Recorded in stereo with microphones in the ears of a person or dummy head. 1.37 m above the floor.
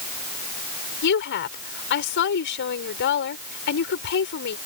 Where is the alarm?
No alarm in this recording.